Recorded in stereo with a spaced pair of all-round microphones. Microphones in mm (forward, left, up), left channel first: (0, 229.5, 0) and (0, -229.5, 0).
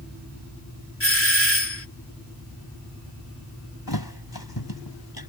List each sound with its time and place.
1.0 s a doorbell: 30° left (ahead or behind)
3.9 s a thud: 50° left (ahead or behind)